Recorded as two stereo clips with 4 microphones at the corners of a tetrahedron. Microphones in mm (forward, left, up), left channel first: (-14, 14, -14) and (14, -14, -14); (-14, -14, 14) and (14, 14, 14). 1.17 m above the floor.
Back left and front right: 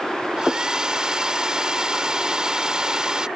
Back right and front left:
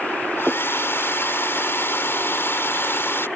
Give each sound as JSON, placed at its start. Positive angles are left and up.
{"t": 0.4, "sound": "a hair dryer", "azimuth_deg": -115}